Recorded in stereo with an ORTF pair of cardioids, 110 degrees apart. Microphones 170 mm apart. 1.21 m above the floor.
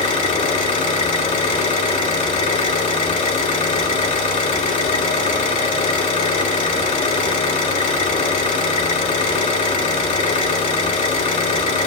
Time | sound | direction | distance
0.0 | an engine running | 45° left | 2.5 m